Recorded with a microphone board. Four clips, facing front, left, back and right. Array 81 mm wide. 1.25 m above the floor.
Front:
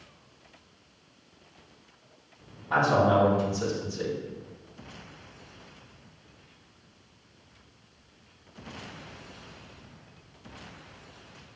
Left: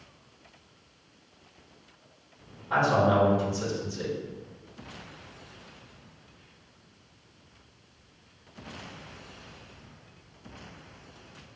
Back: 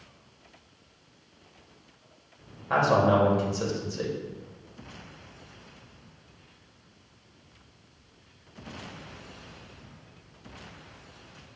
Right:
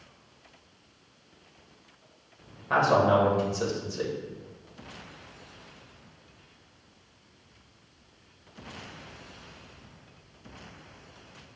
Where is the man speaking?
140° right, 1.5 m.